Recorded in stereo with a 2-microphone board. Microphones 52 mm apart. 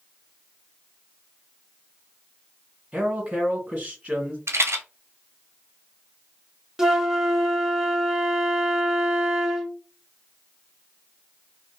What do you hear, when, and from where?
2.9 s a man speaking: 25° right (ahead or behind), 1.6 m
4.5 s a rattle: 60° right (ahead or behind), 0.7 m
6.8 s a flute: 10° right (ahead or behind), 0.5 m